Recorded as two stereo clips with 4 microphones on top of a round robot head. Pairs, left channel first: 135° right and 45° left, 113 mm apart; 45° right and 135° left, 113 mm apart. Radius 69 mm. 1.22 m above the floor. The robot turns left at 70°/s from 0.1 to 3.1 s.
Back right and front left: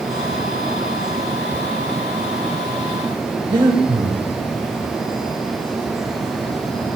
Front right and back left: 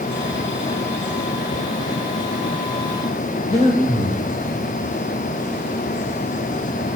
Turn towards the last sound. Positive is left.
turn(degrees=-10)